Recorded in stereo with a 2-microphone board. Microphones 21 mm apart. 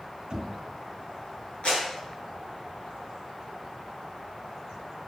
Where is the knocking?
45° right (ahead or behind), 2 m.